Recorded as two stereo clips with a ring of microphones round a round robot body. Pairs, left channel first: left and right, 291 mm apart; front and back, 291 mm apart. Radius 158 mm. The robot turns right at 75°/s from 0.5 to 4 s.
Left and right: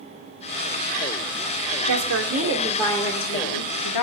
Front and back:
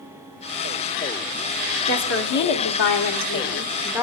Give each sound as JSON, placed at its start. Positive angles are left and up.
{"t": 1.9, "sound": "a woman speaking", "azimuth_deg": -60, "distance_m": 2.0}